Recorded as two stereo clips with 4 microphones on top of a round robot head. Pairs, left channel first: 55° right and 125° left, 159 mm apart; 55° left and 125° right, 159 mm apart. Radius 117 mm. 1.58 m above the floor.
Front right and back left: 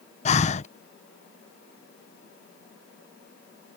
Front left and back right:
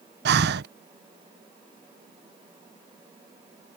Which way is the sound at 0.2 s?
100° right.